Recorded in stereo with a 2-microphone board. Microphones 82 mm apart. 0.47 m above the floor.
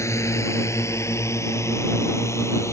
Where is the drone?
35° left (ahead or behind).